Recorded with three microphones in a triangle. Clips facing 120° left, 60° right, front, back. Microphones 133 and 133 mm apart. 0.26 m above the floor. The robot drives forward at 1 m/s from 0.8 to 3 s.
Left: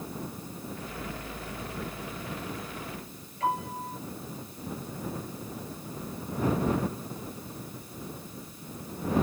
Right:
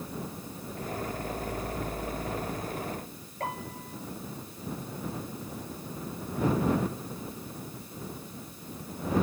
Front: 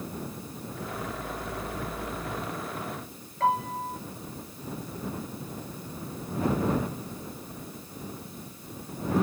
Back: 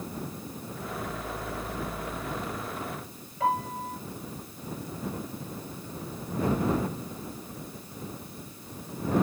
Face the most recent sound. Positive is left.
turn(degrees=-95)